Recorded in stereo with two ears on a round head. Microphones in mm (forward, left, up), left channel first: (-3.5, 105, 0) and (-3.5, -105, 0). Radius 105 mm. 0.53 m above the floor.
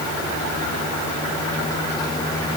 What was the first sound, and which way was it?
Only background noise.